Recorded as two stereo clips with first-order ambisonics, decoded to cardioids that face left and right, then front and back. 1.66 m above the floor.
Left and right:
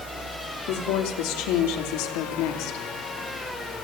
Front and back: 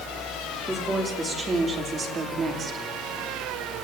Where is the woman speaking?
100° left, 4.5 m; by 2.9 s 115° left, 3.5 m.